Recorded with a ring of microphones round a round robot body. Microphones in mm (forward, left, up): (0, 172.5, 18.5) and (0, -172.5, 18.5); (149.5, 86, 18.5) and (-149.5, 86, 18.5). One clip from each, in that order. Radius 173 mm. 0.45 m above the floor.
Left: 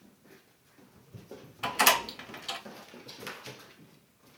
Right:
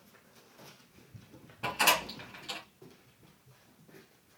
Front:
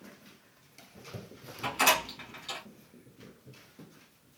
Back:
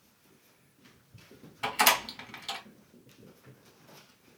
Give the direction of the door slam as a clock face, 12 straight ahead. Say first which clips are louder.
Left 3 dB, back 1 dB; 7 o'clock.